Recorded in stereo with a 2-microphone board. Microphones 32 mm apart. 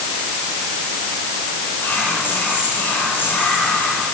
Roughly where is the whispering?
Left.